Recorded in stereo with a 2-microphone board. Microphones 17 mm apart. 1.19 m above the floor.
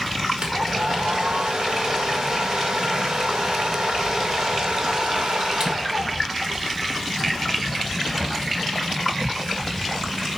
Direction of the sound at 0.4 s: 60° right (ahead or behind).